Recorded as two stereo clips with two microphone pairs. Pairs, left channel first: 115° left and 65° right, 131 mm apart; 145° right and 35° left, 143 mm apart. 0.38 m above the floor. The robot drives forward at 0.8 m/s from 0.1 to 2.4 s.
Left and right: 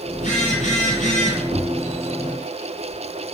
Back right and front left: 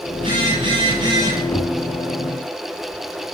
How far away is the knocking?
About 1.5 m.